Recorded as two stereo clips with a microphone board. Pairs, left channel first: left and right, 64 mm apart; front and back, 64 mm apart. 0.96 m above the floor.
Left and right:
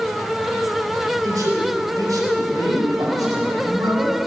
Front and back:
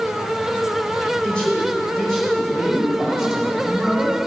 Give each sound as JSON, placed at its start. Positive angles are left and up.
{"t": 1.2, "sound": "a man speaking", "azimuth_deg": -75, "distance_m": 4.0}